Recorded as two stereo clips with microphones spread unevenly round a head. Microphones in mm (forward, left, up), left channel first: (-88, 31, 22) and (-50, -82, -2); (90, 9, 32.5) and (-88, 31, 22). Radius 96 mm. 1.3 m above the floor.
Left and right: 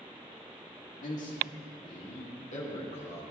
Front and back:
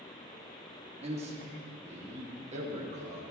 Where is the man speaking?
120° left, 3 m.